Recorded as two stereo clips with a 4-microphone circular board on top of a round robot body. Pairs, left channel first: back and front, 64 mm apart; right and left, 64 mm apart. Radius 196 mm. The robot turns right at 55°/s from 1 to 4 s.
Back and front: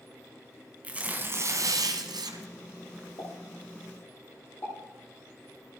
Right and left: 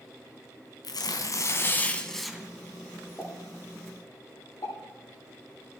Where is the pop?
165° right, 9.5 m; by 4.8 s 120° right, 9.5 m.